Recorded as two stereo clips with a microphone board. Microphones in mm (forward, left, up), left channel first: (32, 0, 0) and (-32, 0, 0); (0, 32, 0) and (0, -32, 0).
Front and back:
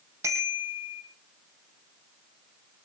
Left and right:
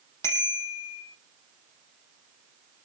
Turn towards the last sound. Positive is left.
turn(degrees=135)